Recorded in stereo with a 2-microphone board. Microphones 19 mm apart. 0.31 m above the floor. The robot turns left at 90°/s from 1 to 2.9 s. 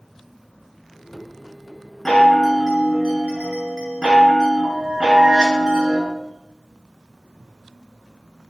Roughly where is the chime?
Ahead left.